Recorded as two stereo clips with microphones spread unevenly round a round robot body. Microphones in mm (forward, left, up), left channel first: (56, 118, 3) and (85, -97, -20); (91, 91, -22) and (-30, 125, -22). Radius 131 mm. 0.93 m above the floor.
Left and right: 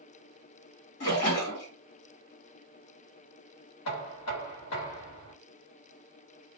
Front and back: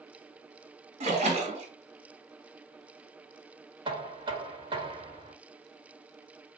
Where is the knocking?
115° left, 1.2 m.